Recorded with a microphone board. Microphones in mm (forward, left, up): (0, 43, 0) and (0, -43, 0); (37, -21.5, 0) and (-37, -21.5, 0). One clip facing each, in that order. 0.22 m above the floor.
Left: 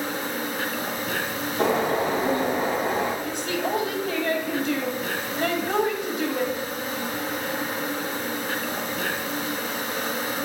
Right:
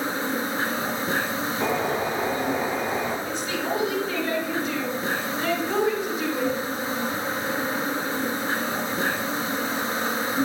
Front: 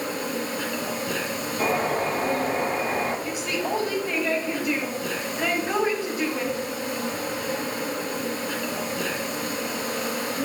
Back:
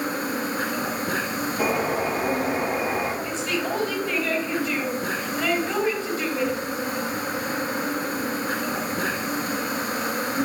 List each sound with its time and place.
0.0 s an insect: 145° right, 3.5 m
1.6 s a bird: 100° left, 3.5 m
3.2 s a woman speaking: 75° left, 5.5 m